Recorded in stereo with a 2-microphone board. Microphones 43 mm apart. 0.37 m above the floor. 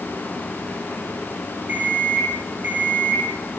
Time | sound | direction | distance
1.7 | an alarm clock | 45° right (ahead or behind) | 8 m